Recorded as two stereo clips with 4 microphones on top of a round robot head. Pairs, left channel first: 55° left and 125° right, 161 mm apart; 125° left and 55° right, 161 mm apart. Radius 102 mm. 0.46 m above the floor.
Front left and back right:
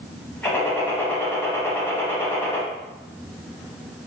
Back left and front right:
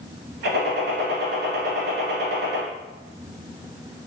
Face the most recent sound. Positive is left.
turn(degrees=-25)